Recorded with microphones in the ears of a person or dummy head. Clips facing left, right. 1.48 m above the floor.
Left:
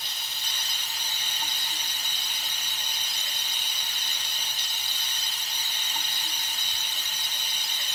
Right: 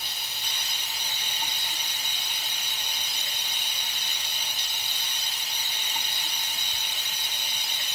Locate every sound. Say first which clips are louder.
0.0 s running water: right 2 dB; 15° right (ahead or behind), 2.5 m